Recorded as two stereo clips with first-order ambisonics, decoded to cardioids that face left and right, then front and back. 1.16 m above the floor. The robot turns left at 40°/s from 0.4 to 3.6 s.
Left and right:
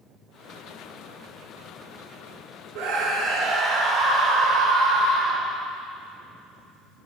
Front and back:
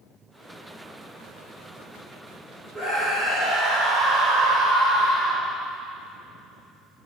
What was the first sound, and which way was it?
A scream, 105° right.